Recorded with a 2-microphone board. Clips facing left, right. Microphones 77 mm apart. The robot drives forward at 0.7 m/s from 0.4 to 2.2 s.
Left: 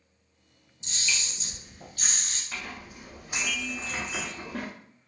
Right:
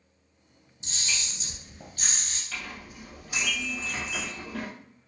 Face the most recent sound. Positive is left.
turn(degrees=25)  # may be behind; listen again after turning